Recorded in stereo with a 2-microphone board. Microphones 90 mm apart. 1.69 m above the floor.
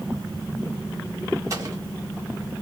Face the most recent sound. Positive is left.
turn(degrees=-40)  # may be behind; listen again after turning